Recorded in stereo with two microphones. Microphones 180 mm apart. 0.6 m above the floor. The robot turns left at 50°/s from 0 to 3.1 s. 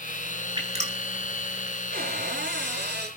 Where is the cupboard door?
55° right, 5 m; by 3.1 s 115° right, 5 m.